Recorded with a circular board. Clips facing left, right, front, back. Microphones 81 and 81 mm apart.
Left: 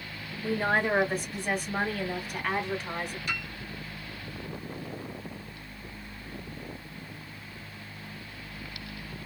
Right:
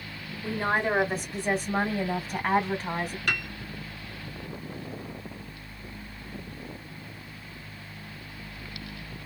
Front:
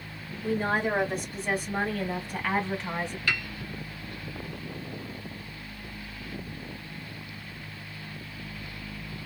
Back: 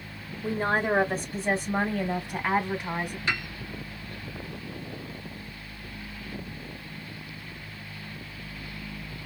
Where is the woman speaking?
175° left, 1.8 m; by 3.2 s 95° right, 1.8 m.